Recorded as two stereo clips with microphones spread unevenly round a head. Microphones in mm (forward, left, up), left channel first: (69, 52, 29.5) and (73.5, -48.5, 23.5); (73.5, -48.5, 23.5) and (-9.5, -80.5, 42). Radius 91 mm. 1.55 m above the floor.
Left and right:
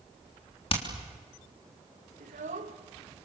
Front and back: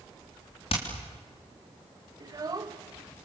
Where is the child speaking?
115° right, 1.6 m.